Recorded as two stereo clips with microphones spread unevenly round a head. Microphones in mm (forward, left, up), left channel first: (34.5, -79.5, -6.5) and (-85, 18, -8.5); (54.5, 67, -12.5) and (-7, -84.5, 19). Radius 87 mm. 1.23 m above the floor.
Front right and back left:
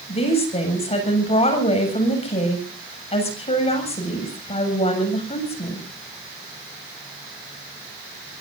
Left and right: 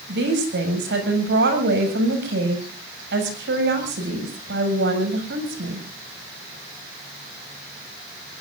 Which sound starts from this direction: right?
A woman speaking, at 0.1 s.